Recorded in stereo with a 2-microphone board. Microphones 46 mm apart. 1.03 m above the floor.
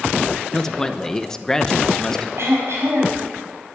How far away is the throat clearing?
About 4.5 m.